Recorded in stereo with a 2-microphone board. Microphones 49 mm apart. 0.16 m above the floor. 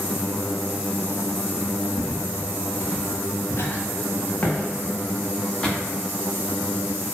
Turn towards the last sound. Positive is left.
turn(degrees=15)  # may be behind; listen again after turning